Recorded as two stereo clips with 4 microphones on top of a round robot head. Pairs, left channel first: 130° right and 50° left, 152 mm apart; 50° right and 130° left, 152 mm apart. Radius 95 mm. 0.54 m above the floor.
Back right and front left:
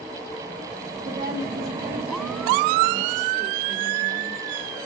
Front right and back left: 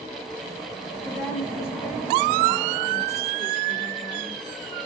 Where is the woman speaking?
25° left, 6 m; by 4.4 s 10° left, 1.3 m.